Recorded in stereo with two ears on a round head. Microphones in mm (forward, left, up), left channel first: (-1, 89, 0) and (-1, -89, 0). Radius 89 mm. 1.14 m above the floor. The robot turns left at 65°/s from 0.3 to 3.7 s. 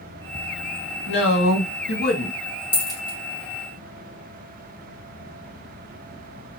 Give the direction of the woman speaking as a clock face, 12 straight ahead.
8 o'clock.